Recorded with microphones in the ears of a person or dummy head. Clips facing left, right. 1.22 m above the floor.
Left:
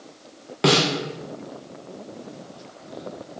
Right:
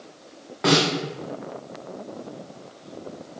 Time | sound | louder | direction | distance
0.6 | a snare drum | left 1 dB | 35° left (ahead or behind) | 0.6 m